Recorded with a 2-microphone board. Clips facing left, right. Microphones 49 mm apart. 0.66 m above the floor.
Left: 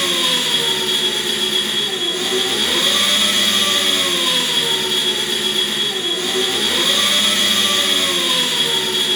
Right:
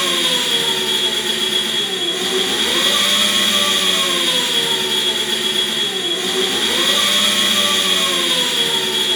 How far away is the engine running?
About 1.5 m.